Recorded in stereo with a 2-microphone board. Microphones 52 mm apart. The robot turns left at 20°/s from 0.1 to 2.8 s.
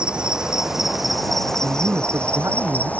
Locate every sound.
0.0 s an insect: 160° right; by 3.0 s 145° left
1.6 s a man speaking: 60° right (ahead or behind); by 2.9 s 80° right